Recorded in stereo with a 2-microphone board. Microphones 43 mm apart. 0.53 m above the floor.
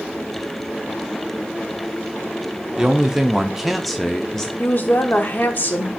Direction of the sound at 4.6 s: 45° left (ahead or behind).